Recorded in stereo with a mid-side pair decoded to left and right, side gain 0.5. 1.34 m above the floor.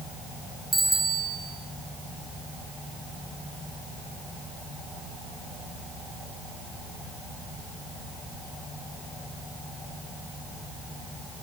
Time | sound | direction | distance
0.7 | a bicycle bell | 20° right | 6 m